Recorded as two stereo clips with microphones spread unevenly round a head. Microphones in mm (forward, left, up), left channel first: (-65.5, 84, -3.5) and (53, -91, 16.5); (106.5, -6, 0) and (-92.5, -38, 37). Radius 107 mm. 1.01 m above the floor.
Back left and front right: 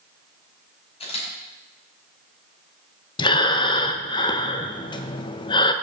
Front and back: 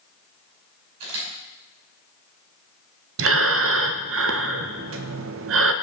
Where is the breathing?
175° right, 0.7 m.